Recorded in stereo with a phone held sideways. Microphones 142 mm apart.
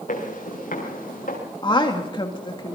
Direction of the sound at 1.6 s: 35° left (ahead or behind).